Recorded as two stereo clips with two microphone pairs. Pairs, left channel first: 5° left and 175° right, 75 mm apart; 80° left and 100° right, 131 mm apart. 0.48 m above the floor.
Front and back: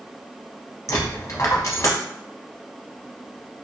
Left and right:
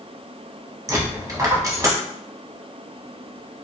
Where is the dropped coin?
40° right, 0.7 m.